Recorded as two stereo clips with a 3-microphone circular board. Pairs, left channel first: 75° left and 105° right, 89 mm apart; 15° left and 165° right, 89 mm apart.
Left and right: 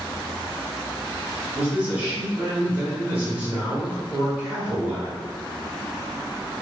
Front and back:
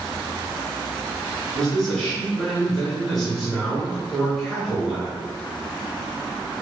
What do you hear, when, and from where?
1.5 s a man speaking: 70° right, 1.4 m